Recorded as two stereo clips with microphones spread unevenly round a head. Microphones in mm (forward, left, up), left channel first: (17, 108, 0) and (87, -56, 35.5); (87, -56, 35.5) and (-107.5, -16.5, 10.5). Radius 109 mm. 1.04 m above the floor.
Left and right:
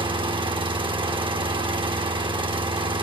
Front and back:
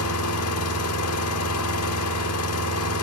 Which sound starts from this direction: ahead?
An engine running, at 0.0 s.